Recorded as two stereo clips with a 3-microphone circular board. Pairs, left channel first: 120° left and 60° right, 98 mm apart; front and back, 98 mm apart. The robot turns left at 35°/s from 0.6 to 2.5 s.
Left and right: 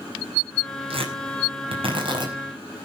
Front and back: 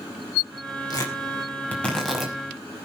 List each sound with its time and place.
0.9 s tearing paper: 45° right, 5.5 m; by 2.3 s 95° right, 5.5 m